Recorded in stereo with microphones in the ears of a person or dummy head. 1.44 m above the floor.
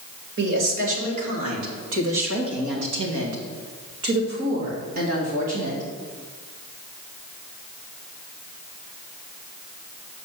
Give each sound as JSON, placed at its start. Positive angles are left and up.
{"t": 0.4, "sound": "a woman speaking", "side_deg": -75, "distance_m": 3.0}